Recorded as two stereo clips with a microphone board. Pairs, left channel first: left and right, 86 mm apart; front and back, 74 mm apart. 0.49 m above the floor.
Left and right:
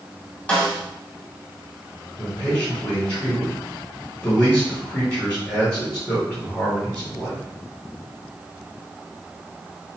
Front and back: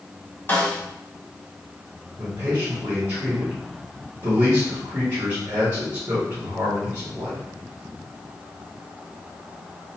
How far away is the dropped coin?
No dropped coin in this recording.